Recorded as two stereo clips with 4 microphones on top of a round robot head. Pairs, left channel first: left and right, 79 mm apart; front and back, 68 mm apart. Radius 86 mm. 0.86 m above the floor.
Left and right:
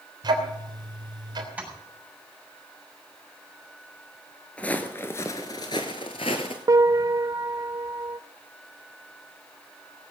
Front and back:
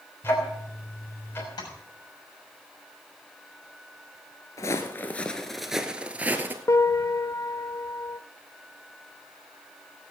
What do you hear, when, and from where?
0.2 s ticking: 60° right, 3 m
1.6 s tapping: 20° right, 6.5 m
4.6 s footsteps: 20° left, 0.9 m; by 6.6 s 130° left, 1.2 m
6.7 s a piano: 45° right, 0.6 m